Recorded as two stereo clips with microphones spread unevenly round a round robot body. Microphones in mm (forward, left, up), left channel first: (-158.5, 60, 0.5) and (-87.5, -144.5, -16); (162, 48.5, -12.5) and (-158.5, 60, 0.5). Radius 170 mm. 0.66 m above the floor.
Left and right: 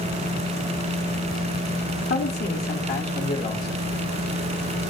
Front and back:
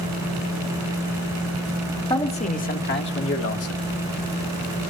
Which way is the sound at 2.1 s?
70° left.